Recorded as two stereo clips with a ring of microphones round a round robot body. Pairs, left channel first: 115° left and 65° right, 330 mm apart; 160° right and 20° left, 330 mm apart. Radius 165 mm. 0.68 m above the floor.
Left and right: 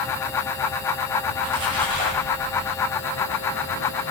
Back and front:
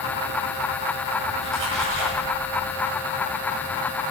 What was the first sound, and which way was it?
A splash, 30° right.